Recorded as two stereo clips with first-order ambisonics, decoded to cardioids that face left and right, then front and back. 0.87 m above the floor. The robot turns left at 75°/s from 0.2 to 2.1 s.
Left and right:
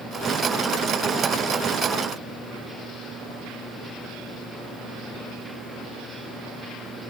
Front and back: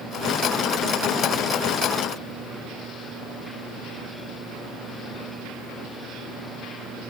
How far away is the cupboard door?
No cupboard door in this recording.